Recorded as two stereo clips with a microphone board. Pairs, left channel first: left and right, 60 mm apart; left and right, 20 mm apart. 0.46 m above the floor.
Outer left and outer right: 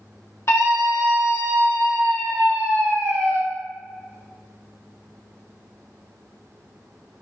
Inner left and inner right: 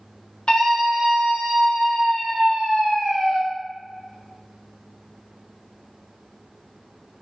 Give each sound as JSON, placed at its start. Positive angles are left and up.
{"t": 0.5, "sound": "a scream", "side_deg": 50, "distance_m": 1.2}